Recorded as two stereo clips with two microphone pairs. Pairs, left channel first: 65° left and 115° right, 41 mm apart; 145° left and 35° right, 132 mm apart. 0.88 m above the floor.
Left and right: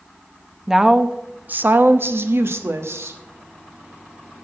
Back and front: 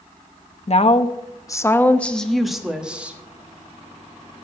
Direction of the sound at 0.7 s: 170° left.